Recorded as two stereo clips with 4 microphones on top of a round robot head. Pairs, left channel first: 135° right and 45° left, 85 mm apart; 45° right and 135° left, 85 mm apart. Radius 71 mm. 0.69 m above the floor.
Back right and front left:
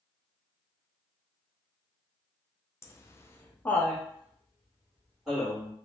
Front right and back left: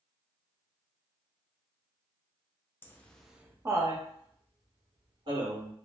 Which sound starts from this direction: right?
Laughter, at 2.8 s.